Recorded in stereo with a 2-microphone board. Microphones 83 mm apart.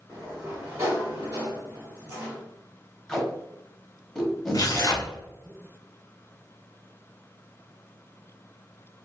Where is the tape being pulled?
5° left (ahead or behind), 0.8 m.